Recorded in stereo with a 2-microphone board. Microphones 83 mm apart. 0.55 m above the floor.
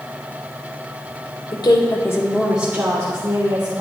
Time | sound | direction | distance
1.5 | a woman speaking | 65° left (ahead or behind) | 1.4 m